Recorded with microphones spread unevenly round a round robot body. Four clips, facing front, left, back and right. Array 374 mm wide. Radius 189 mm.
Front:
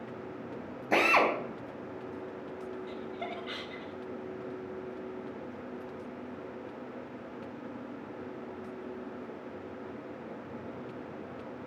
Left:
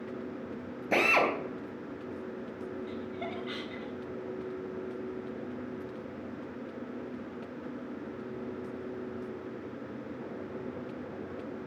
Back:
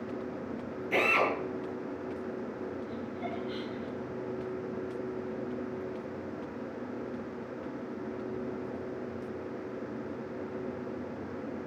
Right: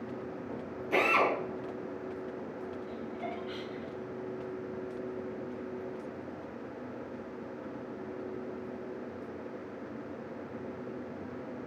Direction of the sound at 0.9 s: 75° left.